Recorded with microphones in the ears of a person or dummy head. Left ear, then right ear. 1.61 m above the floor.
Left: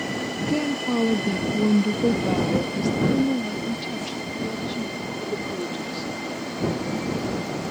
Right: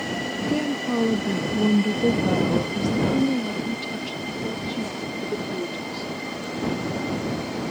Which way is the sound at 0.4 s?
Centre (ahead or behind).